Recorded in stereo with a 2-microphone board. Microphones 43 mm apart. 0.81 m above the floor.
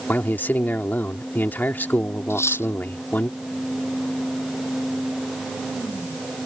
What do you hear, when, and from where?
0.1 s a man speaking: 50° left (ahead or behind)
2.3 s cutlery clinking: 85° left